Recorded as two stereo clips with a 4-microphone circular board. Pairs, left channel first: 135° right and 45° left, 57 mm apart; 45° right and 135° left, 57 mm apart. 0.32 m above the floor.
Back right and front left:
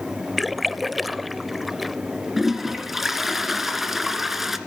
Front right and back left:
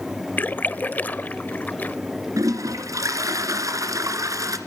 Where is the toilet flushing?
130° left, 2.0 m.